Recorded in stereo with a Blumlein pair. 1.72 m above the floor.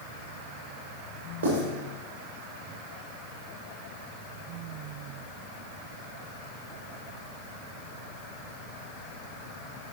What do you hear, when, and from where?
1.4 s writing: 70° right, 3.5 m